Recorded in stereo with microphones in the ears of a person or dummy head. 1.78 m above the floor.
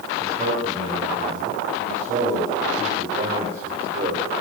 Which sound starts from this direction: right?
A man speaking, at 0.2 s.